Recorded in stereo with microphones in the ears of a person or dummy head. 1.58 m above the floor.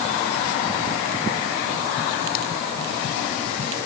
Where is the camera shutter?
I don't hear a camera shutter.